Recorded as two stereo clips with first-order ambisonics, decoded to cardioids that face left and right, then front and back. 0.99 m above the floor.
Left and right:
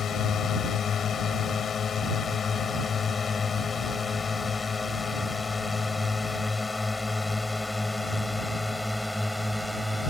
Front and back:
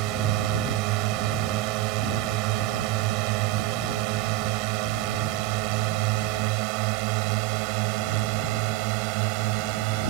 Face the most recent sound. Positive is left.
turn(degrees=180)